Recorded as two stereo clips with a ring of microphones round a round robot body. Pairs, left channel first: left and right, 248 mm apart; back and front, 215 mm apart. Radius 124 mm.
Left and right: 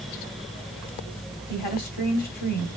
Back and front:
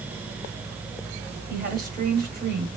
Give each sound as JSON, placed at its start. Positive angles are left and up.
{"t": 1.5, "sound": "a woman speaking", "azimuth_deg": 40, "distance_m": 3.0}